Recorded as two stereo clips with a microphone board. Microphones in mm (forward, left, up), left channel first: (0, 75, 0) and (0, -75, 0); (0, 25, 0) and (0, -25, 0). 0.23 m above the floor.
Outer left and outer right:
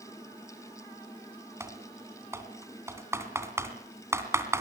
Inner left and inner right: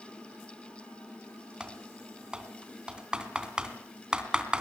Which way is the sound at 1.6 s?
15° right (ahead or behind).